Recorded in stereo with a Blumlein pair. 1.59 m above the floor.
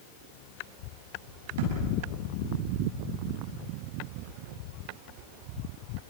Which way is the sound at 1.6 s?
55° right.